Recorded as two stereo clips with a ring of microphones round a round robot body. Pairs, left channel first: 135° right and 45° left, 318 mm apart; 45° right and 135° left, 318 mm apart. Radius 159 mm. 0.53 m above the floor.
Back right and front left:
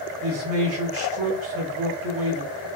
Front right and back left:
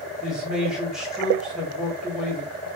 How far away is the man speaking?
About 1.0 m.